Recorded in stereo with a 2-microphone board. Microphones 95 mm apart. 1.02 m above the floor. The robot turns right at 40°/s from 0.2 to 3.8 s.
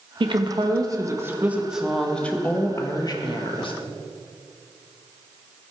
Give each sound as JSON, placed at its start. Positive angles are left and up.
{"t": 0.2, "sound": "a woman speaking", "azimuth_deg": -70, "distance_m": 1.4}